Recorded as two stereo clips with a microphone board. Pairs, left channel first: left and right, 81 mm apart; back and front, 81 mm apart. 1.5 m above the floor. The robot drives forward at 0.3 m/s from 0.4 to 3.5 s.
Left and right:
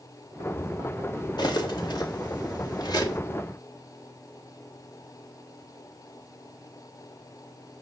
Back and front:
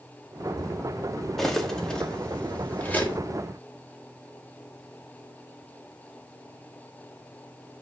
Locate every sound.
1.4 s cutlery clinking: 95° left, 1.5 m; by 3.2 s 115° left, 1.6 m